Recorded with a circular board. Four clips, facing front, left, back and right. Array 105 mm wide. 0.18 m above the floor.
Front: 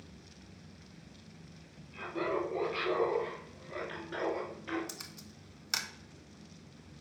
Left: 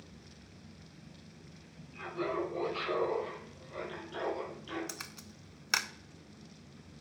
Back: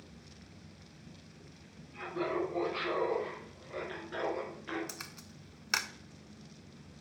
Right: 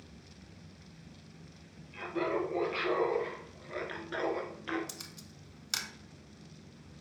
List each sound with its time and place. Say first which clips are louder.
1.9 s laughter: right 2 dB, even; 75° right, 3.5 m; by 4.8 s 90° right, 2 m
4.9 s a camera shutter: left 2 dB, back 1 dB; 120° left, 0.5 m